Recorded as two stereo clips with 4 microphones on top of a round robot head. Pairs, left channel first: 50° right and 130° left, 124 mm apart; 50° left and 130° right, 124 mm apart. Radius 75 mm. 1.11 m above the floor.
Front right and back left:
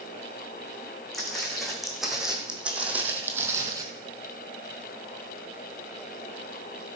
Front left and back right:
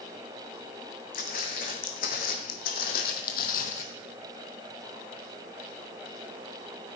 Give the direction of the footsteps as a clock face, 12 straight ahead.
11 o'clock.